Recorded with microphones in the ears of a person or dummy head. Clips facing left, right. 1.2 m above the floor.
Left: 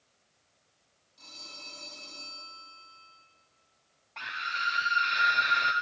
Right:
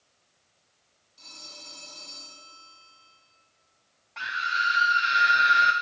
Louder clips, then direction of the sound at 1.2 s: Right 1 dB; 5° right (ahead or behind).